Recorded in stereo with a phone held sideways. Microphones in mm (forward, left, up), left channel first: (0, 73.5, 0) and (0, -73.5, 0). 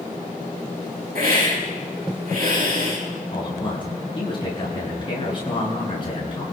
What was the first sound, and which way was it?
A hiss, 75° right (ahead or behind).